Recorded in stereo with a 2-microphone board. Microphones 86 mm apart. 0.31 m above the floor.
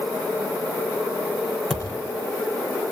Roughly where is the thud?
Centre.